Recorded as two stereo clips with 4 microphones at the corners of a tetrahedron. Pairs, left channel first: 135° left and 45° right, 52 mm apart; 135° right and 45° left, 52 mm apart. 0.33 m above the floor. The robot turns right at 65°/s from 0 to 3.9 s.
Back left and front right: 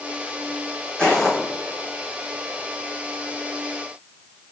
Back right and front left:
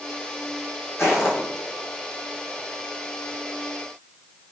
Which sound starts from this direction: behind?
Footsteps, at 1.0 s.